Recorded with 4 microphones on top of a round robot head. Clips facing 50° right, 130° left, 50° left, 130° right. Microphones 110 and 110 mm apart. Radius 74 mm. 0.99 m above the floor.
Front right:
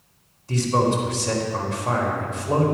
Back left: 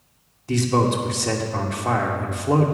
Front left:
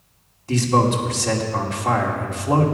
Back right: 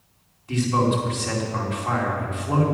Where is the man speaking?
105° left, 2.5 m.